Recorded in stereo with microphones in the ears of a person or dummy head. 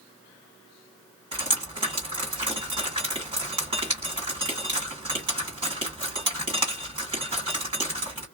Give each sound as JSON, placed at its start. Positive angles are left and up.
{"t": 1.3, "sound": "dripping", "side_deg": -20, "distance_m": 1.8}